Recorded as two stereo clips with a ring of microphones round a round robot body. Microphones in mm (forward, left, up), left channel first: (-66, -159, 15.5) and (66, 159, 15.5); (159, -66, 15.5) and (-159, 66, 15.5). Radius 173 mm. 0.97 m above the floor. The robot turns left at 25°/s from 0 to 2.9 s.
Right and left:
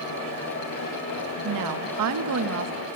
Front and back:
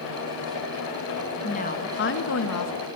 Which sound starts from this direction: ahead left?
A woman speaking, at 1.4 s.